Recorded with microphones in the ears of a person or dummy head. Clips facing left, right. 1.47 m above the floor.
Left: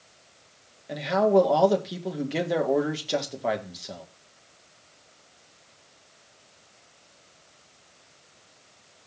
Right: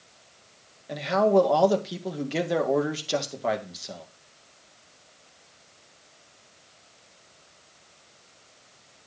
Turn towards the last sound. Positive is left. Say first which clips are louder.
# even
turn(degrees=-5)  # may be behind; listen again after turning